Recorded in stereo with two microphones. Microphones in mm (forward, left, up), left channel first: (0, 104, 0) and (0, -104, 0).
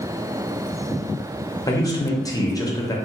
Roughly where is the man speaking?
Centre.